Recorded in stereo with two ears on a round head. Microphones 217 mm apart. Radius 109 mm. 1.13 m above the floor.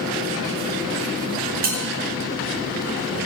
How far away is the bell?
About 5.5 m.